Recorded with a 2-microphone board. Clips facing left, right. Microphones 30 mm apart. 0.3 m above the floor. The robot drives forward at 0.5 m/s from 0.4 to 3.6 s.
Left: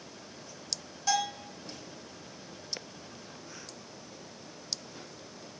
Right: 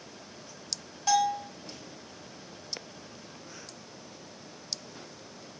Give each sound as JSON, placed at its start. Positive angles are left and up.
{"t": 1.1, "sound": "a bell", "side_deg": -15, "distance_m": 2.5}